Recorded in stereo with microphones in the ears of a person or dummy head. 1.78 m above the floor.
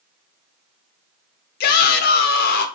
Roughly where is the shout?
Left.